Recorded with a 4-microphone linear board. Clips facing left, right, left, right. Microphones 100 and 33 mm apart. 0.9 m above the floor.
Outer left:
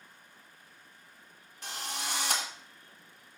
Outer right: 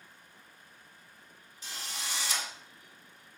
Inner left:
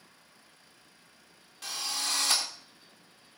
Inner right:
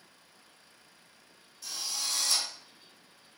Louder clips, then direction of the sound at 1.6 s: Outer left 4 dB, inner left 2 dB; 60° left (ahead or behind).